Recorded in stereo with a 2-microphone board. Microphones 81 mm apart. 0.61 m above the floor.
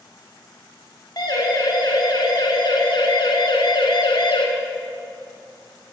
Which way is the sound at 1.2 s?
50° left (ahead or behind).